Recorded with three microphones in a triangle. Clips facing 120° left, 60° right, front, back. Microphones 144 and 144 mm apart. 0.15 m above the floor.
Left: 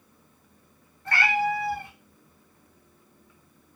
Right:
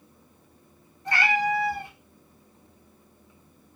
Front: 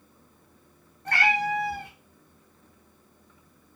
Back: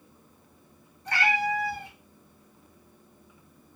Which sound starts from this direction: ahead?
A cat meowing, at 1.1 s.